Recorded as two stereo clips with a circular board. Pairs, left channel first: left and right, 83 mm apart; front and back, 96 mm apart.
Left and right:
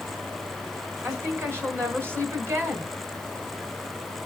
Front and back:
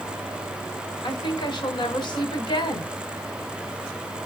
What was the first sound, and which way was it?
A woman speaking, 35° right.